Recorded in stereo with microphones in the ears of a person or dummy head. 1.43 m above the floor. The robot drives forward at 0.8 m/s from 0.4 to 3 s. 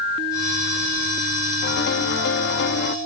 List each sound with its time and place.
1.6 s a piano: 55° left (ahead or behind)